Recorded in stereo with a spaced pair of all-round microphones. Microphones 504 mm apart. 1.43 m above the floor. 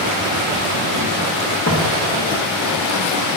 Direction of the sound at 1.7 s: 20° left (ahead or behind).